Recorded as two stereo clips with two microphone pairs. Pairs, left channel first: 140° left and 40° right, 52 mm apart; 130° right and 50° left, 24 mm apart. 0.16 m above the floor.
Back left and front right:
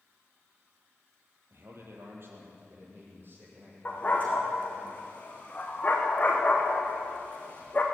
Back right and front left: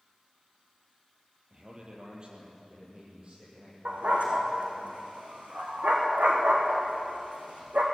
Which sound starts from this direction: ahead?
A man speaking, at 1.5 s.